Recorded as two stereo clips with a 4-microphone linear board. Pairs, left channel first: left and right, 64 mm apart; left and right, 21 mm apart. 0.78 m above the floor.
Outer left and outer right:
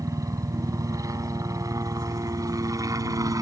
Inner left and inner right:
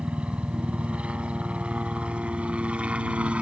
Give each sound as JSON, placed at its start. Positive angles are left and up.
{"t": 0.0, "sound": "a helicopter", "side_deg": -60}